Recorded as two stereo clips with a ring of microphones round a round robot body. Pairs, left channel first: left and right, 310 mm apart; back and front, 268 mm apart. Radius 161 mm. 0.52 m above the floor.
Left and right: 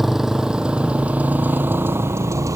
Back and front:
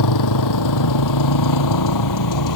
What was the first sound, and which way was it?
A motorcycle, straight behind.